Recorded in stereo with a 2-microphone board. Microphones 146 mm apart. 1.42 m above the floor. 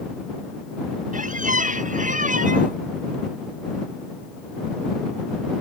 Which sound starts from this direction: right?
A squeak, at 1.1 s.